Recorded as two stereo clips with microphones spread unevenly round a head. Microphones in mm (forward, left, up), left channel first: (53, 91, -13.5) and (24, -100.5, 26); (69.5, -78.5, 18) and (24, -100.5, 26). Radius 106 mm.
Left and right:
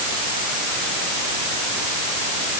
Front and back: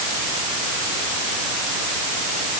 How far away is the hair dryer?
No hair dryer in this recording.